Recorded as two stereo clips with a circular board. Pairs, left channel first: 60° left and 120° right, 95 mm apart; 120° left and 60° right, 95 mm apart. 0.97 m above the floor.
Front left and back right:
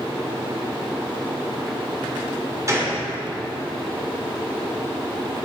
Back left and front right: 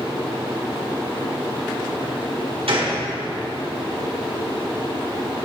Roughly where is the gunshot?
Ahead right.